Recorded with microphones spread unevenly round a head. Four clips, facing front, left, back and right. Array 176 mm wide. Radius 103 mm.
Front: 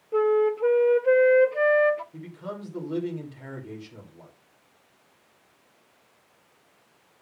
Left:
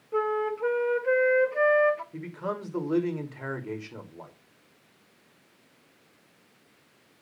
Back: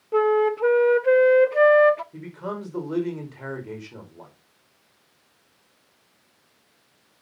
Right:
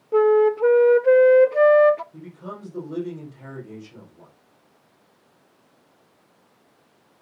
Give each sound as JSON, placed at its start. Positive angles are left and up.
{"t": 0.1, "sound": "a flute", "azimuth_deg": -120, "distance_m": 0.8}
{"t": 2.1, "sound": "a man speaking", "azimuth_deg": 120, "distance_m": 5.0}